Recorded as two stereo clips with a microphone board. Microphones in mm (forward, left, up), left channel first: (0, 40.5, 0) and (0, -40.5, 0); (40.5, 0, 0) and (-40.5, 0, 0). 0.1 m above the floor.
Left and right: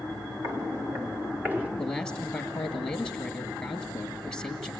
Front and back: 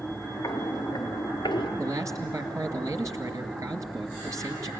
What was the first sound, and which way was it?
Footsteps, 45° right.